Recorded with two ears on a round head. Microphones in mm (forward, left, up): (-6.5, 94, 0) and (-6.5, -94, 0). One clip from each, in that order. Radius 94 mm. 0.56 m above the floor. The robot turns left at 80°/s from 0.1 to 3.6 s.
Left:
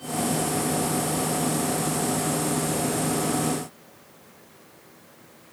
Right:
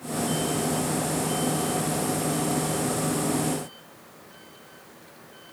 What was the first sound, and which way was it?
Only background noise.